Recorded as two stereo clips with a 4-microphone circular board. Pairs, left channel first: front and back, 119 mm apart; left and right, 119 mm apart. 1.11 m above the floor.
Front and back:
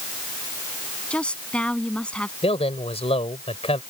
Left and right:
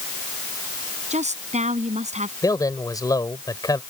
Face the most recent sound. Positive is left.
turn(degrees=30)